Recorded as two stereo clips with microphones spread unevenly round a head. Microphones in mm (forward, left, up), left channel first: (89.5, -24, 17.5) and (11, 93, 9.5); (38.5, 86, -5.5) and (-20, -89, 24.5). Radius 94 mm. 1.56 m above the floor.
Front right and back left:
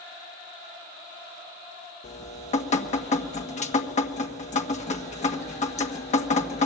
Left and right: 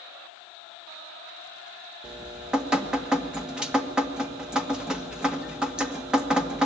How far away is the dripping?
About 1.6 m.